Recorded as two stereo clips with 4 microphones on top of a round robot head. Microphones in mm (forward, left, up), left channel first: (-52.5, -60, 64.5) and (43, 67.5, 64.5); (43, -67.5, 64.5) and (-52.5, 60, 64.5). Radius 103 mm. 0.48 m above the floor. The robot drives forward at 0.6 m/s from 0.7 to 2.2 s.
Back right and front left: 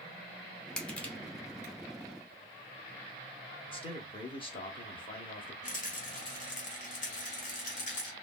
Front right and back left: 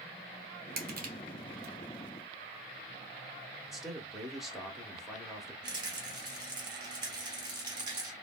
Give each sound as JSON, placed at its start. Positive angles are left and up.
{"t": 0.8, "sound": "crushing", "azimuth_deg": 150, "distance_m": 1.1}
{"t": 3.7, "sound": "a man speaking", "azimuth_deg": -145, "distance_m": 0.9}
{"t": 5.6, "sound": "a rattle", "azimuth_deg": -170, "distance_m": 1.0}